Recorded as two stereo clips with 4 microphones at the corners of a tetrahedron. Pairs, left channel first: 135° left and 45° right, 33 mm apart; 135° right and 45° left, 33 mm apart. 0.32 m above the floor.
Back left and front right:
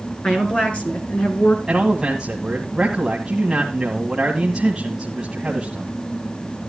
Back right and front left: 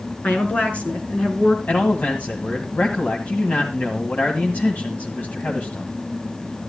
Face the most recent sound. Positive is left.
turn(degrees=-115)